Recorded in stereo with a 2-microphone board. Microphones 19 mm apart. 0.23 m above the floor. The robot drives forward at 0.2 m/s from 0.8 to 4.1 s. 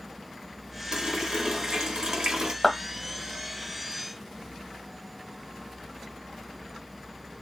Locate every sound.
0.9 s a running tap: 50° right (ahead or behind), 1.3 m
2.6 s a clap: 15° left (ahead or behind), 1.0 m